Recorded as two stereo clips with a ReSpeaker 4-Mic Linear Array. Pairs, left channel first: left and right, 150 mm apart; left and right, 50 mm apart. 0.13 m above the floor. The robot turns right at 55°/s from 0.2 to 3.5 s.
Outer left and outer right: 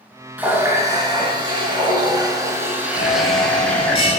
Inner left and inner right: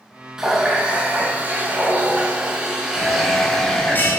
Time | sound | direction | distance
0.4 | a running tap | 160° right | 0.8 m
3.0 | a bell | 55° left (ahead or behind) | 0.8 m